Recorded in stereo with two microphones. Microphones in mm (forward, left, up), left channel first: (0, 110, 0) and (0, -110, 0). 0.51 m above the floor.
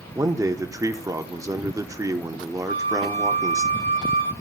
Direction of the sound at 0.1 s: 15° right (ahead or behind).